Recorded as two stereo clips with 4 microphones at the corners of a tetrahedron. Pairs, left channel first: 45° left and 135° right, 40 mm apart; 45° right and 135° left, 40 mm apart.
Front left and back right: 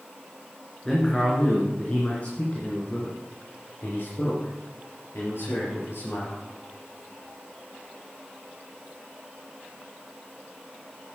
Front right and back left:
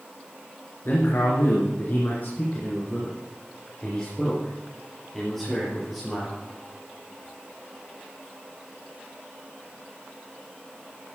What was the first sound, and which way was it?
A man speaking, 30° right.